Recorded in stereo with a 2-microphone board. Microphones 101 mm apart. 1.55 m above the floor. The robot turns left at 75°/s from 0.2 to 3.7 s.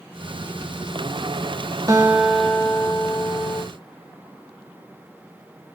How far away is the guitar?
About 2.5 m.